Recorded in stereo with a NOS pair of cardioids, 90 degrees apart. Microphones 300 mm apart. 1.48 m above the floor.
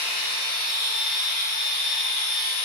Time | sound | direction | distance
0.0 | a machine running | 65° left | 1.9 m